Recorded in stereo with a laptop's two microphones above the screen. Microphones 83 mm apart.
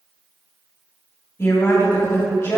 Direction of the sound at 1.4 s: 35° left (ahead or behind).